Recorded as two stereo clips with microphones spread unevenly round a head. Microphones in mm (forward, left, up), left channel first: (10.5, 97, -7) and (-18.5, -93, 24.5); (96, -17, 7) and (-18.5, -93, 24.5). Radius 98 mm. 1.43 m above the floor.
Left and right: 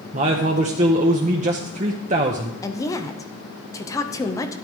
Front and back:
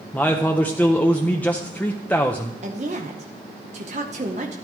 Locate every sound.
0.1 s a man speaking: 50° right, 0.8 m
2.6 s a woman speaking: 155° left, 1.0 m